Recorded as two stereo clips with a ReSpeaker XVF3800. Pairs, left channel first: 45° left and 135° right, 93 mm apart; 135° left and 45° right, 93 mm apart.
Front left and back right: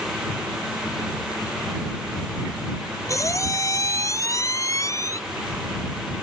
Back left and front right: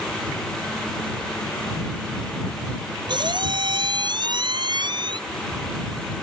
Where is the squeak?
10° right.